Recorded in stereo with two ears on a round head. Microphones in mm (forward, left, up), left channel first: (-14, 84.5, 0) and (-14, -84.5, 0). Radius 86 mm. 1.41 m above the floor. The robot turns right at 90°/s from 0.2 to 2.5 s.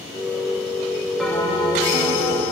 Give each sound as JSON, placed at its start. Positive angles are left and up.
{"t": 1.2, "sound": "a bell", "azimuth_deg": 0, "distance_m": 3.0}